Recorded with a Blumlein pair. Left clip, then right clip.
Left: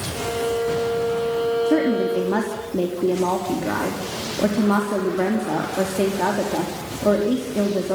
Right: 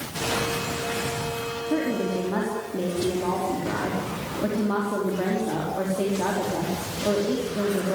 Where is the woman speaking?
20° left, 4 m.